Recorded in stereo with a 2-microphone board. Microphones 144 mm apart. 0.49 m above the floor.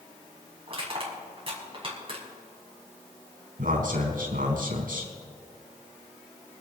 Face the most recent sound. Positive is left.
turn(degrees=-75)  # may be behind; listen again after turning